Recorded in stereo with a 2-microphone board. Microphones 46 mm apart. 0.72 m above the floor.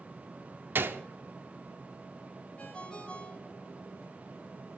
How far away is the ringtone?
About 2 m.